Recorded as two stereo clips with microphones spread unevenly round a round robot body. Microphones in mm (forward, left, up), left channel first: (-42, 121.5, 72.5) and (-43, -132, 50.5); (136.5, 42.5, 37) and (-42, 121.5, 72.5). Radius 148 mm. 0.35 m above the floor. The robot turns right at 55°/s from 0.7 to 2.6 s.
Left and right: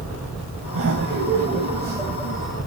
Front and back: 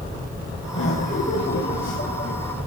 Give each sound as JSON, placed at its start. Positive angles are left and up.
{"t": 0.7, "sound": "laughter", "azimuth_deg": -80, "distance_m": 2.5}